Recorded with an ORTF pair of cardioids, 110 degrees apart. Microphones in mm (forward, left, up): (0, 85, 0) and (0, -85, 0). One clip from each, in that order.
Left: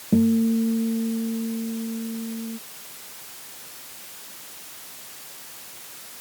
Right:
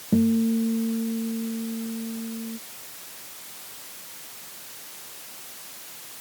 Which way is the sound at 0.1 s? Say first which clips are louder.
Left 2 dB; 10° left.